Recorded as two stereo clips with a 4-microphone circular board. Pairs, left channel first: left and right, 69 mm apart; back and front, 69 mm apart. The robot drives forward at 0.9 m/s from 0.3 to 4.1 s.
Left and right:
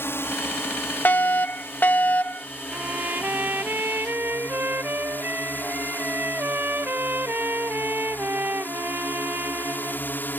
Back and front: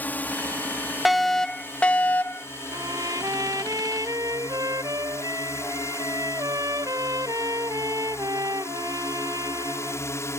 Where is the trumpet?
25° right; by 10.1 s 30° right.